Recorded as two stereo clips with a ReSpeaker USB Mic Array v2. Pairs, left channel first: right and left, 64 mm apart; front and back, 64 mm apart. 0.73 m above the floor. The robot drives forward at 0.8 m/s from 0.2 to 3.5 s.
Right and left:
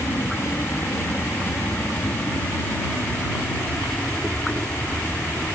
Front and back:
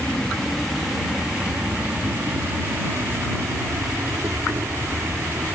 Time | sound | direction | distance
0.0 | an insect | 70° right | ?